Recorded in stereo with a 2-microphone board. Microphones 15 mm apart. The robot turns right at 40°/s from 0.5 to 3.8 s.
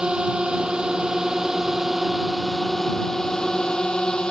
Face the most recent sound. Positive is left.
turn(degrees=55)